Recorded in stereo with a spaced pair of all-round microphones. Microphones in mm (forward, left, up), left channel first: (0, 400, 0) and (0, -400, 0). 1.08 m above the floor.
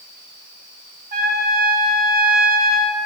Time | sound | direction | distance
1.1 | a trumpet | 45° right (ahead or behind) | 1.1 m